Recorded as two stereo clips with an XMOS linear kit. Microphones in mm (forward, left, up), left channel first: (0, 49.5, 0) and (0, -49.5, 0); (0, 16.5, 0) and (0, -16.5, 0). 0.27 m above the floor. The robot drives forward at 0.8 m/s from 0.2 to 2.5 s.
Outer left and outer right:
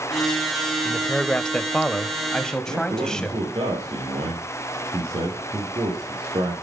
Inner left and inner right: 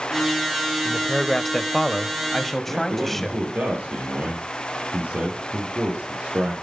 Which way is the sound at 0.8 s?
10° left (ahead or behind).